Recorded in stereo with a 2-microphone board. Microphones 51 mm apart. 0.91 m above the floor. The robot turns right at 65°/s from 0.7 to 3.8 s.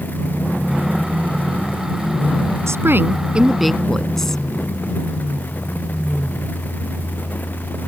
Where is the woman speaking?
65° right; by 4.4 s 5° left.